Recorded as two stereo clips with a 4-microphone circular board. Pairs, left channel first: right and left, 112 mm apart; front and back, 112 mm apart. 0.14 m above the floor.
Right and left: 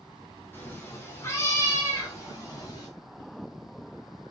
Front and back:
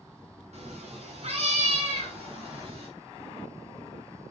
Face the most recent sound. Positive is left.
turn(degrees=-150)